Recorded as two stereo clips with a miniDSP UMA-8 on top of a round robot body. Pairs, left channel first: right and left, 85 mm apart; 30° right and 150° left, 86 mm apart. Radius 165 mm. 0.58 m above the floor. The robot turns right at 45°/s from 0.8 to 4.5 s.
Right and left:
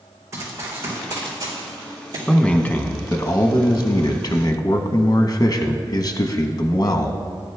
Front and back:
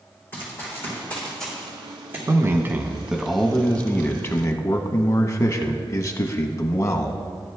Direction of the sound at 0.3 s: 35° left.